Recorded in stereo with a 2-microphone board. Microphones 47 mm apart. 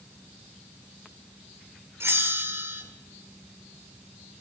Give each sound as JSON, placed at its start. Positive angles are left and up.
{"t": 2.0, "sound": "a bell", "side_deg": -75, "distance_m": 2.0}